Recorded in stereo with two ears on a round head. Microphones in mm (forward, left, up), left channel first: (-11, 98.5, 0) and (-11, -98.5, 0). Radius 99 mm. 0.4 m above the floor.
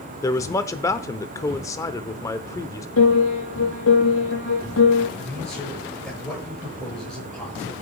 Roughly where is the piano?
Left.